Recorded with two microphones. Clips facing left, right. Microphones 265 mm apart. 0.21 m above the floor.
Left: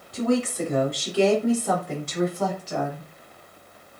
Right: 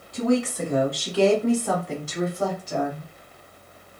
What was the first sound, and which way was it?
A woman speaking, 35° left (ahead or behind).